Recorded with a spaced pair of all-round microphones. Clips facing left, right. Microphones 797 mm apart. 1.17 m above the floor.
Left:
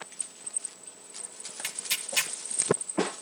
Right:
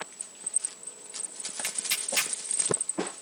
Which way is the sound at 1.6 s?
5° left (ahead or behind).